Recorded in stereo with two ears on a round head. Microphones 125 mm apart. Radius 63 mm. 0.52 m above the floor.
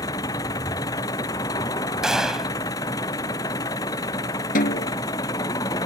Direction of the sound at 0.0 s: 25° left (ahead or behind).